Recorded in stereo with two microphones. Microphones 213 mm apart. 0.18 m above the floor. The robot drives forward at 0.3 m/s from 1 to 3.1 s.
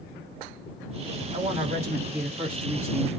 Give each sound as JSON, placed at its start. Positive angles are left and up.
{"t": 1.3, "sound": "a woman speaking", "side_deg": -35, "distance_m": 1.9}